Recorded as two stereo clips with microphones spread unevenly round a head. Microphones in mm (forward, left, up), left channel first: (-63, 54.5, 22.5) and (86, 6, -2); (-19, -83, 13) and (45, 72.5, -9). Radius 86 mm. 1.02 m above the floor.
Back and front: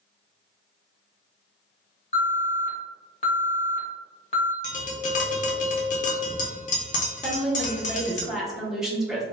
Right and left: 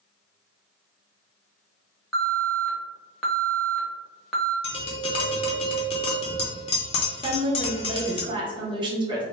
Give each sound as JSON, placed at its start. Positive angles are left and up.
{"t": 2.1, "sound": "an alarm", "azimuth_deg": 145, "distance_m": 0.7}
{"t": 4.6, "sound": "tapping", "azimuth_deg": -170, "distance_m": 0.6}
{"t": 7.2, "sound": "a woman speaking", "azimuth_deg": 55, "distance_m": 0.8}